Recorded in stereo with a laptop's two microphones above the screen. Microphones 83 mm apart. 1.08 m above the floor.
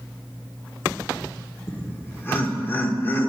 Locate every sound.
1.7 s laughter: 25° left (ahead or behind), 1.0 m